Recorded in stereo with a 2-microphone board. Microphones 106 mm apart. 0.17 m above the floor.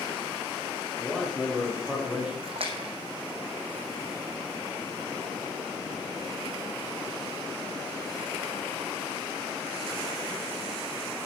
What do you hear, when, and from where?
1.0 s a man speaking: 5° right (ahead or behind), 5.5 m; by 2.3 s 10° right (ahead or behind), 6 m
2.4 s a splash: 60° right (ahead or behind), 2 m